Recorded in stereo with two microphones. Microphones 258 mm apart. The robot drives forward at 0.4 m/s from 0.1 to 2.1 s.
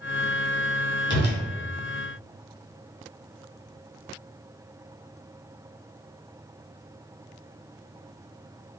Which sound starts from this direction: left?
A whoosh, at 1.1 s.